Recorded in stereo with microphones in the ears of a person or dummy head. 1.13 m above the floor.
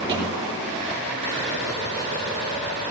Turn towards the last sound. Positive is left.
turn(degrees=-35)  # may be behind; listen again after turning